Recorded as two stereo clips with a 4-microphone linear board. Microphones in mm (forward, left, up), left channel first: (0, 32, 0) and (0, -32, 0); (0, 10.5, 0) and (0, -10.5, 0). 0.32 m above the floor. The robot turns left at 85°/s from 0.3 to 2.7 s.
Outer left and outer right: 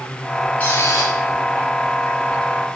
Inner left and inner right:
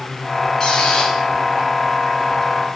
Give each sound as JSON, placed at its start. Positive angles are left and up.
{"t": 0.6, "sound": "a squeak", "azimuth_deg": 155, "distance_m": 2.5}